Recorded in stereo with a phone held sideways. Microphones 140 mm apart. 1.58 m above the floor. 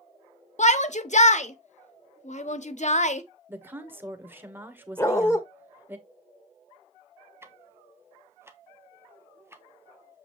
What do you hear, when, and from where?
0.6 s a shout: 55° left (ahead or behind), 1.0 m
3.5 s a woman speaking: 15° right (ahead or behind), 1.4 m
5.0 s a dog barking: 20° left (ahead or behind), 1.3 m
7.4 s ticking: 15° right (ahead or behind), 1.0 m